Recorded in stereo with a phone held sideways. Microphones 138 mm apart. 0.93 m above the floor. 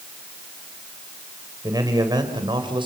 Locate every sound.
1.6 s a man speaking: 25° right (ahead or behind), 4 m; by 2.9 s 35° right (ahead or behind), 4 m